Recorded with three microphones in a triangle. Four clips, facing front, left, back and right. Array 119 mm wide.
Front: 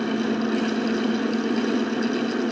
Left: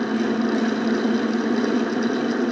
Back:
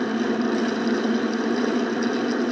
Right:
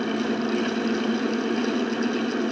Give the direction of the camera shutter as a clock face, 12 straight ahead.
No camera shutter in this recording.